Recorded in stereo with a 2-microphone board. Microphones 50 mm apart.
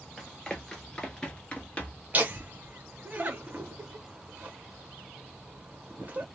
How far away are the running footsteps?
About 1.3 m.